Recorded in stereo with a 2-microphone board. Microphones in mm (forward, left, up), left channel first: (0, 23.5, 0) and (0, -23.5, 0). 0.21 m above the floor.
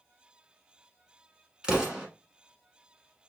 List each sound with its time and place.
1.6 s an explosion: 15° right (ahead or behind), 1.2 m